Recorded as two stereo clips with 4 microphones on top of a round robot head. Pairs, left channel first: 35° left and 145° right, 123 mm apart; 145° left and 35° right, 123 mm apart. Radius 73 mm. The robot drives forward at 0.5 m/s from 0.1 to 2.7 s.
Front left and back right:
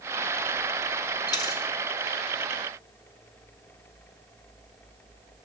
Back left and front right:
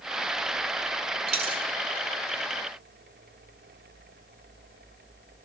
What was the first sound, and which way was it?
A dropped coin, 10° right.